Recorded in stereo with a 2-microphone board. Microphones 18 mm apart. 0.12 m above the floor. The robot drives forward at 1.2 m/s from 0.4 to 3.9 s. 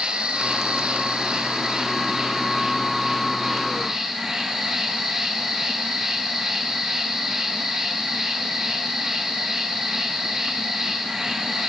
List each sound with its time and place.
0.0 s an insect: 70° right (ahead or behind), 1.5 m; by 11.7 s 20° right (ahead or behind), 4 m